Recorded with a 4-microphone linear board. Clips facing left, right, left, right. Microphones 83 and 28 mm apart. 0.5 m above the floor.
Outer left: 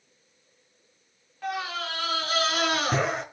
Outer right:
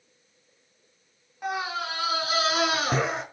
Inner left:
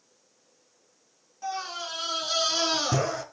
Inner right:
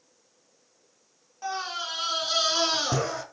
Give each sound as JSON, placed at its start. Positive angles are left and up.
{"t": 1.4, "sound": "a scream", "side_deg": -15, "distance_m": 5.0}